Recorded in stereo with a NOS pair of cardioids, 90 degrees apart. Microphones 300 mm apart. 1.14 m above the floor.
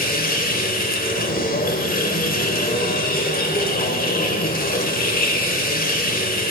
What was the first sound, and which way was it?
A machine running, 30° left.